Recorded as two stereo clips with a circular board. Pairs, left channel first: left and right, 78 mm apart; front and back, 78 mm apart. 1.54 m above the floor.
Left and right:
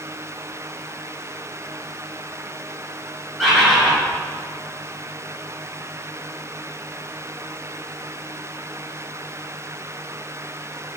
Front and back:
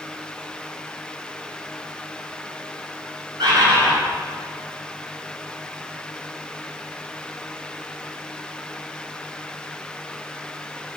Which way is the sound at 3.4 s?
Straight behind.